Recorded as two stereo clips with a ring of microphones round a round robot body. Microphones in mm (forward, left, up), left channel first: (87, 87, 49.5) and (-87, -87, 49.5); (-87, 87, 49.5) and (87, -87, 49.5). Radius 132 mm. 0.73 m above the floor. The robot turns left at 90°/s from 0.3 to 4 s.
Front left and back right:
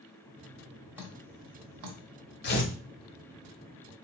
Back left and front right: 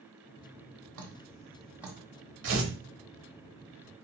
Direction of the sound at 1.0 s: 50° right.